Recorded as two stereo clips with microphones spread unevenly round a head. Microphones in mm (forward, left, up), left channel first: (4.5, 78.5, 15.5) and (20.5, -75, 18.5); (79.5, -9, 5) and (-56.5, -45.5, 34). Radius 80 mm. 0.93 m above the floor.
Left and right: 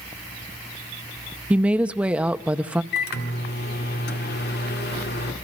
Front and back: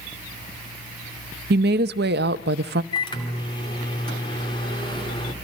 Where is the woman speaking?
165° right, 0.7 m.